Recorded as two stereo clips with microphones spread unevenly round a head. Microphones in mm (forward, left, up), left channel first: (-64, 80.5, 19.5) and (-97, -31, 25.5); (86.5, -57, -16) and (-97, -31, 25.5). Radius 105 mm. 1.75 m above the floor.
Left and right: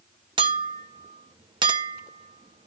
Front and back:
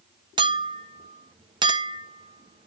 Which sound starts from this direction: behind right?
A clink, at 0.4 s.